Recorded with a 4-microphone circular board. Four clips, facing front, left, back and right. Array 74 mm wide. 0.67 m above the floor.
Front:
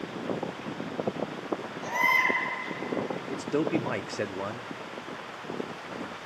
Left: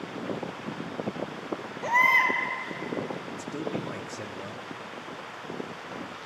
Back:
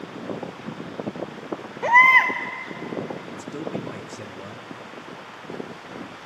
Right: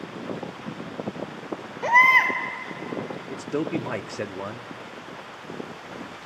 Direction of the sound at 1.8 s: 160° right.